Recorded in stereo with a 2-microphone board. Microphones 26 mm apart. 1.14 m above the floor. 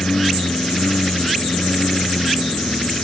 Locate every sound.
0.0 s a lawn mower: 60° left (ahead or behind)